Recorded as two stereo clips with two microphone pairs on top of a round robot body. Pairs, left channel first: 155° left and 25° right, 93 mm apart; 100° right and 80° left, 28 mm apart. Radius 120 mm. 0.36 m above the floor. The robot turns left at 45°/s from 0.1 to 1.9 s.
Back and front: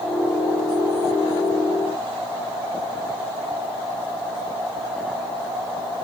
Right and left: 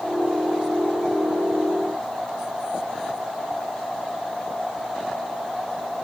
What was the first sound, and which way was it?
Only background noise.